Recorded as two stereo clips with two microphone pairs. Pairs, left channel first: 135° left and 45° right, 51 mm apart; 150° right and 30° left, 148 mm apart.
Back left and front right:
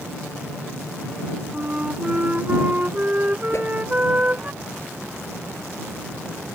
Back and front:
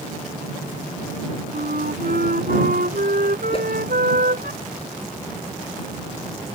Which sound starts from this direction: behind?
A whoosh, at 3.5 s.